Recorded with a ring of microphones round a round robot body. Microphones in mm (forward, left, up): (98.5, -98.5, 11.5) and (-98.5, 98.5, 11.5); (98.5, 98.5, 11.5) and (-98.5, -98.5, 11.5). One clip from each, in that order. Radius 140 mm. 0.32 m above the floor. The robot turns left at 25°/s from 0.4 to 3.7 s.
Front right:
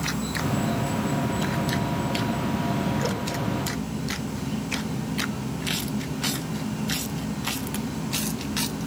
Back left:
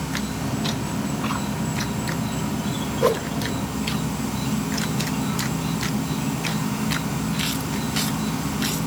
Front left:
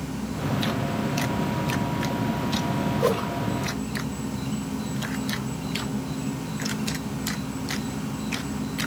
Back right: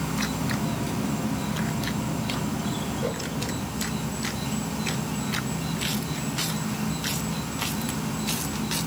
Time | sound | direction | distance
0.0 | an insect | 120° right | 1.6 m
3.0 | a whoosh | 100° left | 0.5 m